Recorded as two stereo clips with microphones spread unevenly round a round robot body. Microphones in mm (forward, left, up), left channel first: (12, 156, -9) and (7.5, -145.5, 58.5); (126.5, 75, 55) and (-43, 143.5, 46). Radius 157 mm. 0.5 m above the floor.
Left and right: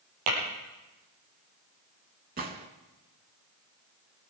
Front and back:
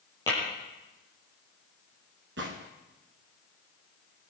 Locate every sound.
0.3 s tapping: 100° right, 8.5 m
2.4 s a gunshot: 150° right, 1.4 m